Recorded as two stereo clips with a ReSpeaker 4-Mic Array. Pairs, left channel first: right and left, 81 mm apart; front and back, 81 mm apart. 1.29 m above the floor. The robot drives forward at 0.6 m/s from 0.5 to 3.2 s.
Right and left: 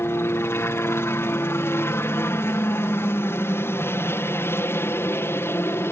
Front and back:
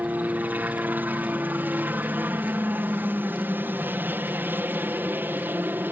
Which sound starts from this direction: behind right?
A helicopter, at 0.0 s.